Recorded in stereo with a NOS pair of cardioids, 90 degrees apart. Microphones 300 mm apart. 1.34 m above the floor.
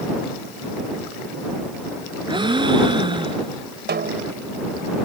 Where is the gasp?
15° right.